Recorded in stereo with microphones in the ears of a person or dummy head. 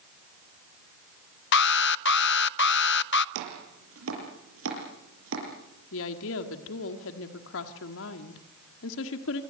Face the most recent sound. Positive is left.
turn(degrees=75)  # may be behind; listen again after turning